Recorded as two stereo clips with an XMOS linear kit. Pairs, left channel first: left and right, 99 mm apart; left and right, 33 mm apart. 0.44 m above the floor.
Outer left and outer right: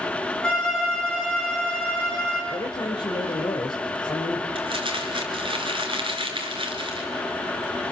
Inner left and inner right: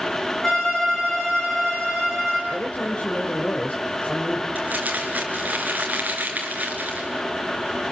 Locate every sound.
0.4 s a violin: 10° left (ahead or behind), 6.5 m
2.5 s a woman speaking: 50° left (ahead or behind), 2 m
4.5 s crumpling: 55° right (ahead or behind), 4 m